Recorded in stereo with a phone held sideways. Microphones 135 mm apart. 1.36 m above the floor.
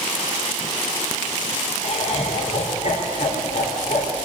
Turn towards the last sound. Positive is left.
turn(degrees=60)  # may be behind; listen again after turning